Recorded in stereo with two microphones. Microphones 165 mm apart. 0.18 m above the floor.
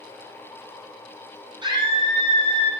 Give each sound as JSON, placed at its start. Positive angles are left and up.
{"t": 1.6, "sound": "a scream", "side_deg": -30, "distance_m": 7.0}